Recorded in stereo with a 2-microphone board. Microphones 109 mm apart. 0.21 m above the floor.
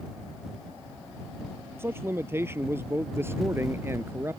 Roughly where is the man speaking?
Right.